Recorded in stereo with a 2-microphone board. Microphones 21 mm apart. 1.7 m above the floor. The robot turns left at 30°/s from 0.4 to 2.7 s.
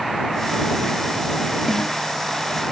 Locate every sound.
1.7 s a snare drum: 15° left (ahead or behind); by 2.0 s 25° left (ahead or behind)